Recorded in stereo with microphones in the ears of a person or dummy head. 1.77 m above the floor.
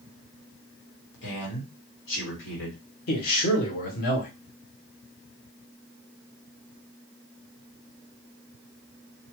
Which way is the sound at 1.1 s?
75° left (ahead or behind).